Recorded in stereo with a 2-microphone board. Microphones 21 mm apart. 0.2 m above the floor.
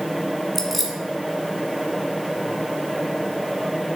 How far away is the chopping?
I don't hear chopping.